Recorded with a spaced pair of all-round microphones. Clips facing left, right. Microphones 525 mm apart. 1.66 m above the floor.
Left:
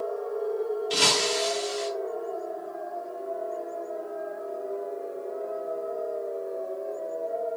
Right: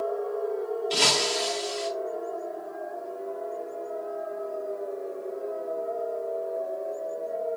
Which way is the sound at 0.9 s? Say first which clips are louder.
Left 1 dB; 35° left (ahead or behind).